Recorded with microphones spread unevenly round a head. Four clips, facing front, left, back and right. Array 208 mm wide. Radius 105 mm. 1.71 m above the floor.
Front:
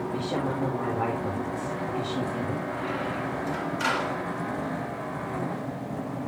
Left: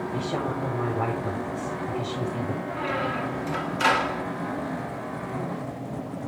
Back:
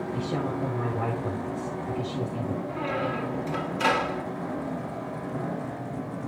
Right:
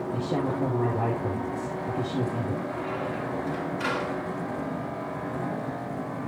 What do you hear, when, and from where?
0.1 s a woman speaking: 100° right, 8 m
2.7 s a squeak: 170° left, 2 m